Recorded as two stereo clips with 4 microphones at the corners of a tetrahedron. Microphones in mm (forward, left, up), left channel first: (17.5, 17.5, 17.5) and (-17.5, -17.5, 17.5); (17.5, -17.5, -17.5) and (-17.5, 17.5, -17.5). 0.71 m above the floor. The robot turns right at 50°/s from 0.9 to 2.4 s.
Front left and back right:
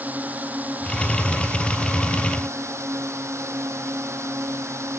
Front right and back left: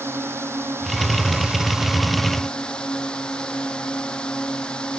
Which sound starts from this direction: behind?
A drone, at 0.0 s.